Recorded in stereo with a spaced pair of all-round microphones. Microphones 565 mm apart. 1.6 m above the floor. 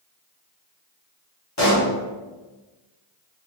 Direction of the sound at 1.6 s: 30° left (ahead or behind).